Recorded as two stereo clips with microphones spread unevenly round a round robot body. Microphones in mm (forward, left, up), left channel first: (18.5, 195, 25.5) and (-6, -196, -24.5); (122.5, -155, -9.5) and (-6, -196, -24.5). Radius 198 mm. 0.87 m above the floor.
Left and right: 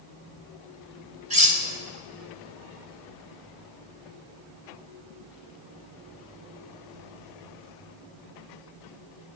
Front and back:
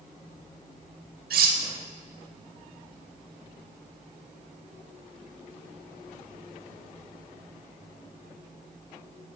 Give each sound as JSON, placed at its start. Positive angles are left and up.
{"t": 1.3, "sound": "cutlery clinking", "azimuth_deg": -165, "distance_m": 0.9}